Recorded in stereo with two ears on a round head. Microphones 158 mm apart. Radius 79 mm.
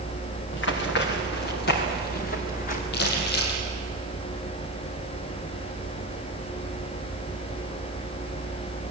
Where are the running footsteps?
65° left (ahead or behind), 4.5 m; by 2.8 s 45° left (ahead or behind), 4 m.